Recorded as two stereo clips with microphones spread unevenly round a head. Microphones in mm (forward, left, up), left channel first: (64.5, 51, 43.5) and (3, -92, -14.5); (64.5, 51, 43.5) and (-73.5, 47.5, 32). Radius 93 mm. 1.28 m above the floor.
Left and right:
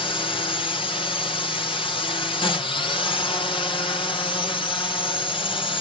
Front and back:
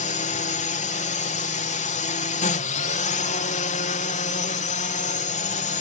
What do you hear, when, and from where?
0.0 s a drone: straight ahead